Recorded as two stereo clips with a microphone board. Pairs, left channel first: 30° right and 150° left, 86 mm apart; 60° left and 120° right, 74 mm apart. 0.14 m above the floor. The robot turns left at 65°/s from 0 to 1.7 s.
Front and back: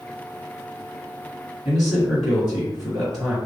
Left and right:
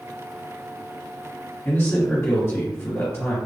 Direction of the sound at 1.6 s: 70° left.